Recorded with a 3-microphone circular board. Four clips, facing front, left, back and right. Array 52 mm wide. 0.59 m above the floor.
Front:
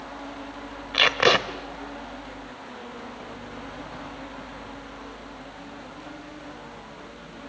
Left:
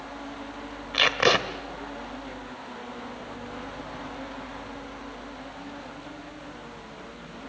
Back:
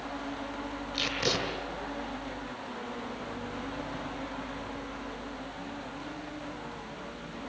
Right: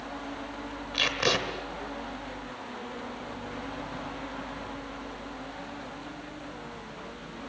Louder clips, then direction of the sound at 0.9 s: Left 6 dB, front 12 dB; 30° left.